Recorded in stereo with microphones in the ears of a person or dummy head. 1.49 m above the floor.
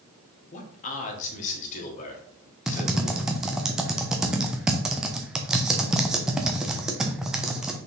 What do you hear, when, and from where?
0.5 s a man speaking: 40° left (ahead or behind), 1.4 m
2.7 s typing on a keyboard: 5° right (ahead or behind), 0.8 m